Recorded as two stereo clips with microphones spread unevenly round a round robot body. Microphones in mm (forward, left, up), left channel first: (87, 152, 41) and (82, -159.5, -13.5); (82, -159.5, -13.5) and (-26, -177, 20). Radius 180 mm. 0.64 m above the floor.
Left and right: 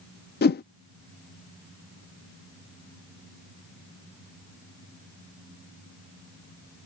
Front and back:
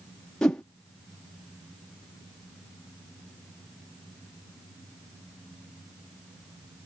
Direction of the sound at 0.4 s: 45° left.